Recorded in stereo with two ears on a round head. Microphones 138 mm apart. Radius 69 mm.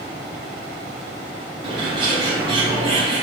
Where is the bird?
35° right (ahead or behind), 2 m.